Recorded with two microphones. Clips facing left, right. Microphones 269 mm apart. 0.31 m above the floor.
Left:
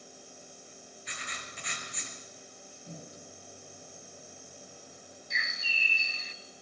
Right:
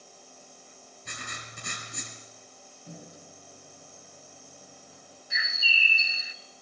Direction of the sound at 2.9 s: 15° right (ahead or behind).